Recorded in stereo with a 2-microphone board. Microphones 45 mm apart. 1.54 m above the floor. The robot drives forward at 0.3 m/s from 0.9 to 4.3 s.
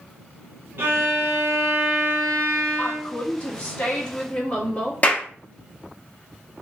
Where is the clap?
35° left (ahead or behind), 0.7 m.